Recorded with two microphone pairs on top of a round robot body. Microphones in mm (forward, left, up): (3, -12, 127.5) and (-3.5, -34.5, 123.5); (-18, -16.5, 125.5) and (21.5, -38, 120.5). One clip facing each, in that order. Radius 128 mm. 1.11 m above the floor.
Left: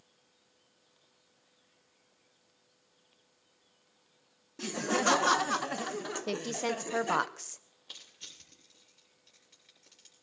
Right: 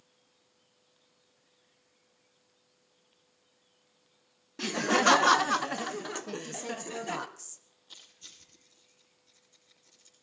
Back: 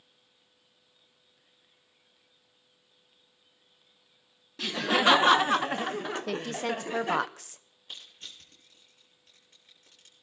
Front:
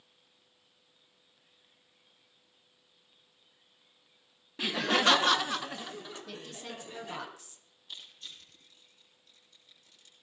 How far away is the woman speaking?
About 0.6 m.